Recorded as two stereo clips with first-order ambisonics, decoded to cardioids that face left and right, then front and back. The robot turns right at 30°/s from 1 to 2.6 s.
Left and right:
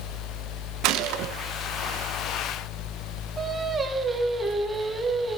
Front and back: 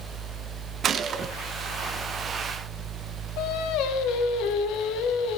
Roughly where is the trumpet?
I don't hear a trumpet.